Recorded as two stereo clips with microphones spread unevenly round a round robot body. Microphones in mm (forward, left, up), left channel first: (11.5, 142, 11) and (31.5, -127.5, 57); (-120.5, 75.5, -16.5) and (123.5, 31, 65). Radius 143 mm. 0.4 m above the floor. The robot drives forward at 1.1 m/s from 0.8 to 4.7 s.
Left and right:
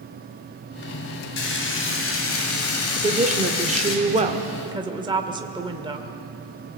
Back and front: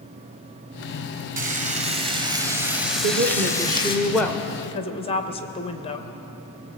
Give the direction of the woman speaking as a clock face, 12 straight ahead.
1 o'clock.